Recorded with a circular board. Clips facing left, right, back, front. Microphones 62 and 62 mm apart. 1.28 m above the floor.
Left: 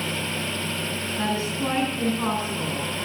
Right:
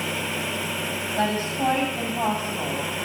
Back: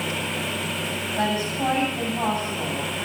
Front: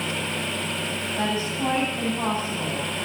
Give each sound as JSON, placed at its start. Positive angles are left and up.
{"t": 1.2, "sound": "a woman speaking", "azimuth_deg": -95, "distance_m": 8.5}